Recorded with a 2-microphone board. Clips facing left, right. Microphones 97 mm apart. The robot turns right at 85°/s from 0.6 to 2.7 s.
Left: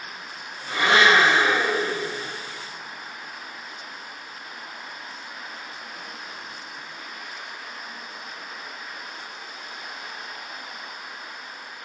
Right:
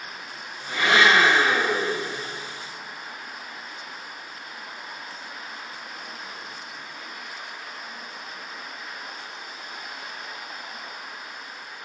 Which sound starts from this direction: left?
A blender, at 0.7 s.